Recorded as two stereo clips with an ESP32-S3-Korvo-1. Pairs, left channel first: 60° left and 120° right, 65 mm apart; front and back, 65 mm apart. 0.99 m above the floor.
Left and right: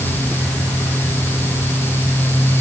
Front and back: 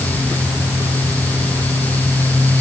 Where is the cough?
I don't hear a cough.